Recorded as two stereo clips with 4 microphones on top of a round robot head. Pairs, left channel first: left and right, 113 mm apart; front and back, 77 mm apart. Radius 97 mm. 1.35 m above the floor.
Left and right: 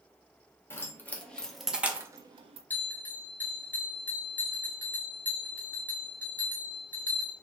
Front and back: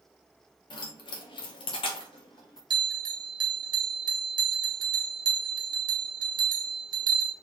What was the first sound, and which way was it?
Keys jangling, 20° left.